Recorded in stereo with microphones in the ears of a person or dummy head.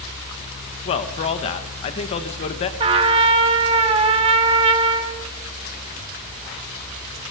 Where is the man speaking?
35° left (ahead or behind), 1.5 m.